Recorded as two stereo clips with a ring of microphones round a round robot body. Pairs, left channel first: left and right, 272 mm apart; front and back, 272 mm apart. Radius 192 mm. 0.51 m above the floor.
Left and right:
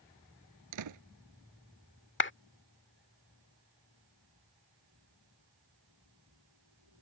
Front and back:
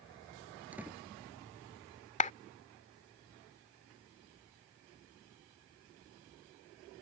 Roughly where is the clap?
Ahead left.